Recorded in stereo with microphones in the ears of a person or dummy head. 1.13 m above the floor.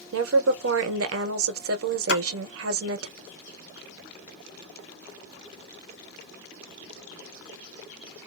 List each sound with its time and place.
0.1 s a woman speaking: 70° right (ahead or behind), 0.6 m
2.1 s a splash: 80° left, 1.4 m